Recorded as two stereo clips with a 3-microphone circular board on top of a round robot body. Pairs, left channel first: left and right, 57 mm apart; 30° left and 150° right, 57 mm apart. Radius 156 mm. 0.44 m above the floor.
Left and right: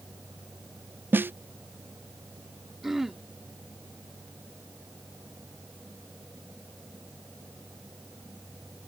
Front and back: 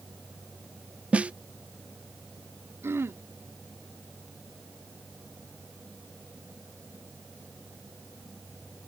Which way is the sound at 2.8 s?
170° right.